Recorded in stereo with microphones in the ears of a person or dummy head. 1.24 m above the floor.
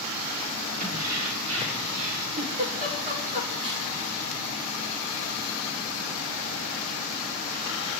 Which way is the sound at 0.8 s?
80° right.